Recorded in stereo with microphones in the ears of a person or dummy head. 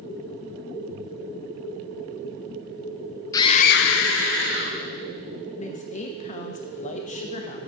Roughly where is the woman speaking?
Left.